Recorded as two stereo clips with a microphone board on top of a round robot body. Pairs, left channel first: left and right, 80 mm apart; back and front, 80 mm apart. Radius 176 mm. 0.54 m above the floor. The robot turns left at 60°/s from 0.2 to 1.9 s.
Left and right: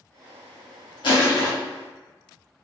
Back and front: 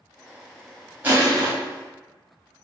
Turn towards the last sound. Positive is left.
turn(degrees=20)